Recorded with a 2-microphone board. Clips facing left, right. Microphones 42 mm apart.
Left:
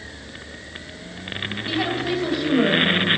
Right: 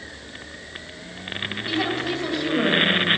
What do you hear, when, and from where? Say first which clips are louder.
1.7 s a woman speaking: left 1 dB; 5° left (ahead or behind), 3 m